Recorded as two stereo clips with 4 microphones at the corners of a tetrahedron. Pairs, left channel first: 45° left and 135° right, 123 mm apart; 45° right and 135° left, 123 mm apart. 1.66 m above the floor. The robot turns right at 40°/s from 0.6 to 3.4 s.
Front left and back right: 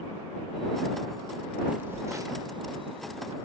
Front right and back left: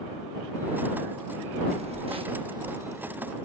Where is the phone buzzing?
145° left; by 3.4 s 145° right.